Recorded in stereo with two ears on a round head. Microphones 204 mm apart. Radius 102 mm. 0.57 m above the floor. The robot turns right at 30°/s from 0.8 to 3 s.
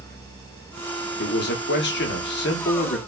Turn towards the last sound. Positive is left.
turn(degrees=115)